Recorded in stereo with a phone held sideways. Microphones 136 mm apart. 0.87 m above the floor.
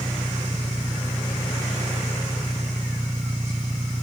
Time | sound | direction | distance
0.0 | an engine running | 45° right (ahead or behind) | ?